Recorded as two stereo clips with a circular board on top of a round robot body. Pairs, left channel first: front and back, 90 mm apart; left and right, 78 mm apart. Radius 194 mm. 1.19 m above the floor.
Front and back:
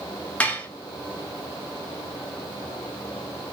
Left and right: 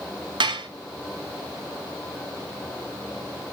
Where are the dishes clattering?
75° right, 2 m.